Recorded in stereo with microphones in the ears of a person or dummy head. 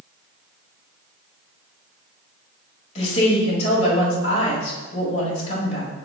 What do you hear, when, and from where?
3.0 s a woman speaking: 35° left (ahead or behind), 3.5 m